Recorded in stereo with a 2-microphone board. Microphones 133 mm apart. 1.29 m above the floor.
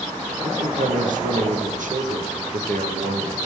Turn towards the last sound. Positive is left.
turn(degrees=-75)  # may be behind; listen again after turning